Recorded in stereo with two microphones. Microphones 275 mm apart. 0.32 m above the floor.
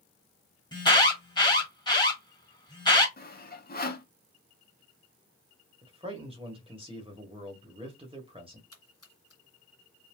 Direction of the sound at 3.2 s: 35° left (ahead or behind).